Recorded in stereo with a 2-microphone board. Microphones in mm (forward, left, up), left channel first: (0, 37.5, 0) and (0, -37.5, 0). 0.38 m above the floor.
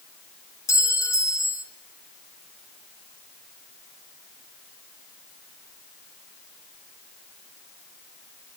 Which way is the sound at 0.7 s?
45° left (ahead or behind).